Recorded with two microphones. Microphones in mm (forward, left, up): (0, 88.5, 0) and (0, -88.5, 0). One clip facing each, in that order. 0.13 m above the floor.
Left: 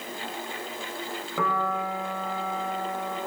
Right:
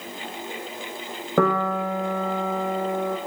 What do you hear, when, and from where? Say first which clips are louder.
1.4 s a piano: right 7 dB; 55° right (ahead or behind), 1.2 m